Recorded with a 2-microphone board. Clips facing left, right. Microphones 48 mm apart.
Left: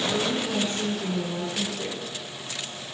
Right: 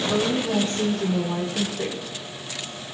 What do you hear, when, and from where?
0.1 s a woman speaking: 60° right (ahead or behind), 2.5 m; by 2.0 s 55° right (ahead or behind), 5 m